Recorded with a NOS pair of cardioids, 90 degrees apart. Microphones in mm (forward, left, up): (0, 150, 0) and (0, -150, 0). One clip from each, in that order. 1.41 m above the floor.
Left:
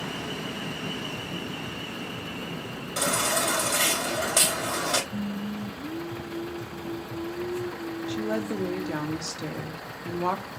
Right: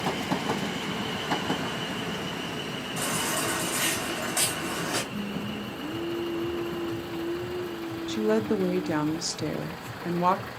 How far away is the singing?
About 0.7 m.